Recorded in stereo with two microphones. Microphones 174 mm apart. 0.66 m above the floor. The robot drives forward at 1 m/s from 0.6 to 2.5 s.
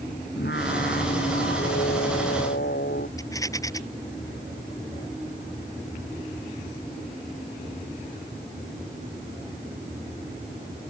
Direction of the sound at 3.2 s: 20° left (ahead or behind).